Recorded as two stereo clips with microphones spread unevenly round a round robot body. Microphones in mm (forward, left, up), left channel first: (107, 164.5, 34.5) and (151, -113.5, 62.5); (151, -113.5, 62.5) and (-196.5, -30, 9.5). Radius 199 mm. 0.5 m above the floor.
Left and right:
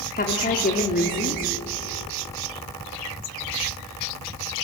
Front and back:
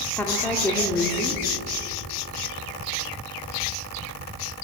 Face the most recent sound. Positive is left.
turn(degrees=80)